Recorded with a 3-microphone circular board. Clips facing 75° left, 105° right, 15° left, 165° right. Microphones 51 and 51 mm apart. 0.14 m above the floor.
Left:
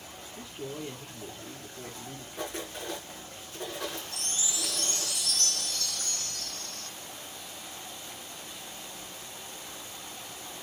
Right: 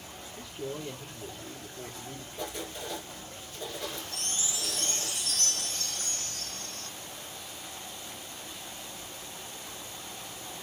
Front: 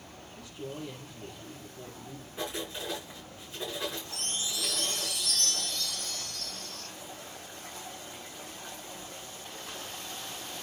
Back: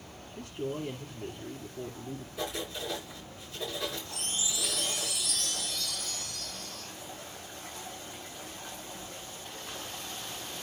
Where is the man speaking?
150° left, 2.5 m.